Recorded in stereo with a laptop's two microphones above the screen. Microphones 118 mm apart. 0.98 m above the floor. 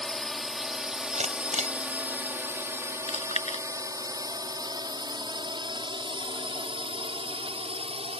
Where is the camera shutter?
85° right.